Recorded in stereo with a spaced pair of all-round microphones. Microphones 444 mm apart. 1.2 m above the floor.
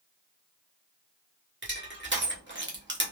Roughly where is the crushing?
Right.